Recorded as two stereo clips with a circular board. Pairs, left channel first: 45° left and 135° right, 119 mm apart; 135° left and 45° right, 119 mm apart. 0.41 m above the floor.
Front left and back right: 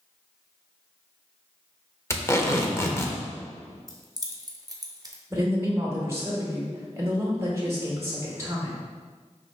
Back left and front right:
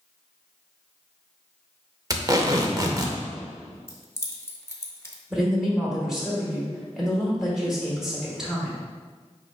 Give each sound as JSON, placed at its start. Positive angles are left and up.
{"t": 2.1, "sound": "tape being pulled", "azimuth_deg": -10, "distance_m": 0.6}
{"t": 3.9, "sound": "keys jangling", "azimuth_deg": -170, "distance_m": 0.7}
{"t": 5.3, "sound": "a woman speaking", "azimuth_deg": -125, "distance_m": 1.0}